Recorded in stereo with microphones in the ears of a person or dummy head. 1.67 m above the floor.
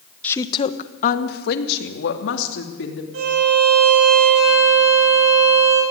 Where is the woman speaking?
10° left (ahead or behind), 1.1 m; by 3.0 s 80° left, 4 m.